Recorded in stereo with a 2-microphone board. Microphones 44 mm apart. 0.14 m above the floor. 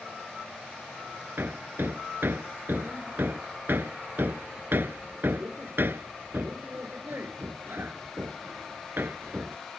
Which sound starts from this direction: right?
Hammering, at 1.4 s.